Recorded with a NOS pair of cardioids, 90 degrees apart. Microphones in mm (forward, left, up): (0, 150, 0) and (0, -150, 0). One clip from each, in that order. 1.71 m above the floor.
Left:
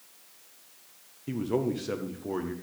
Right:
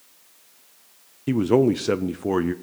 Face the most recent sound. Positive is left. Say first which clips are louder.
# right 11 dB
turn(degrees=-50)